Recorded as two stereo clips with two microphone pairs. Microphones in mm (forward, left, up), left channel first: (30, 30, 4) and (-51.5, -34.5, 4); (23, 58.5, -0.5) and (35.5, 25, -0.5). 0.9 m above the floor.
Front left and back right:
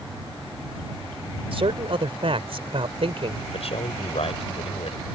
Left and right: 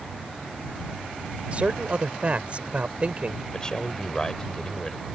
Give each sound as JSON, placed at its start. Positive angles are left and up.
{"t": 1.5, "sound": "a man speaking", "azimuth_deg": -115}
{"t": 3.5, "sound": "a man speaking", "azimuth_deg": 45}